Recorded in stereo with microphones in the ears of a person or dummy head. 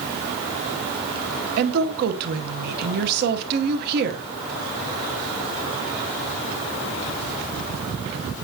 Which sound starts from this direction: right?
A woman speaking, at 1.6 s.